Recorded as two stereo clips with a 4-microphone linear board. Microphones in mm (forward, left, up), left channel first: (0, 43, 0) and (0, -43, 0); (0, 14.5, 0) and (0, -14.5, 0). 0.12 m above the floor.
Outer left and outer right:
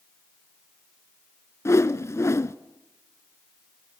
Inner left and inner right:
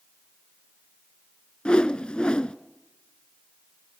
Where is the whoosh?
30° left (ahead or behind), 0.7 m.